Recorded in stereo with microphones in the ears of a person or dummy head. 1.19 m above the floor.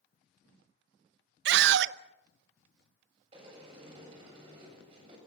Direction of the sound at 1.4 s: 70° right (ahead or behind).